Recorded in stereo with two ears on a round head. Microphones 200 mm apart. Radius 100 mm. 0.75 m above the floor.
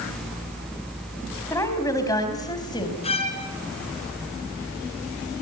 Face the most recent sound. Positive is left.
turn(degrees=30)  # may be behind; listen again after turning